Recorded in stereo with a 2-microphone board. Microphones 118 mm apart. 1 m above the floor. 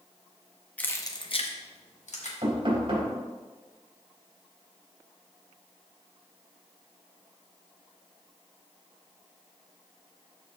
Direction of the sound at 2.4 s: 50° right (ahead or behind).